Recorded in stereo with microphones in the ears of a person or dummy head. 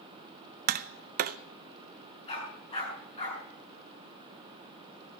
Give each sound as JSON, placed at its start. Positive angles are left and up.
{"t": 0.7, "sound": "tapping", "side_deg": -45, "distance_m": 0.5}
{"t": 2.3, "sound": "a dog barking", "side_deg": 35, "distance_m": 6.0}